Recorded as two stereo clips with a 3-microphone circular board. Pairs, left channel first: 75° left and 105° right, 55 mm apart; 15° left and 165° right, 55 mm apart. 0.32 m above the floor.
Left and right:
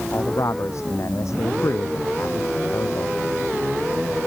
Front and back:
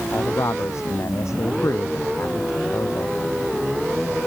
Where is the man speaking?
45° left.